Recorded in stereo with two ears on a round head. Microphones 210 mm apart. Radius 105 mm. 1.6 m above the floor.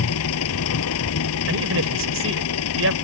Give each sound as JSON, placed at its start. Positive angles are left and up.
{"t": 0.0, "sound": "an engine running", "side_deg": 65}
{"t": 1.5, "sound": "a man speaking", "side_deg": -55}